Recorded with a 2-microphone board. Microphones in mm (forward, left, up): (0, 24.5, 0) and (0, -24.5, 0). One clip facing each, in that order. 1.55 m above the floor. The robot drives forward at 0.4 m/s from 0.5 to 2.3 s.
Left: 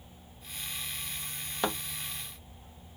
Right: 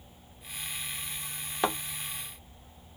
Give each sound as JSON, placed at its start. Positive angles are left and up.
{"t": 1.6, "sound": "a thud", "side_deg": -10, "distance_m": 1.0}